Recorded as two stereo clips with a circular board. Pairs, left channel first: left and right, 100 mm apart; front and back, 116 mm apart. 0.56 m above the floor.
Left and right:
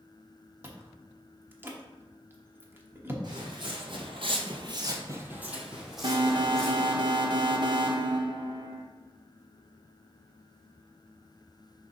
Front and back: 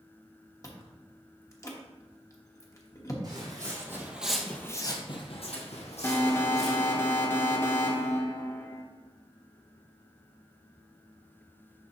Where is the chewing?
40° right, 1.0 m.